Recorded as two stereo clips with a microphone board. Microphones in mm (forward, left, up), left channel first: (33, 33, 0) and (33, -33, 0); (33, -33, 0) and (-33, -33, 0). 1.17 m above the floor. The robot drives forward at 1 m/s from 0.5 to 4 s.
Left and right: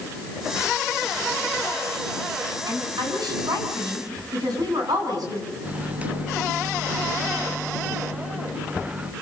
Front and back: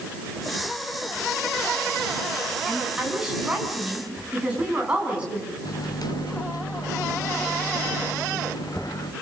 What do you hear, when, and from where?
2.7 s a woman speaking: 100° right, 9 m; by 5.5 s 105° right, 9 m
5.7 s a microwave: 20° right, 1.3 m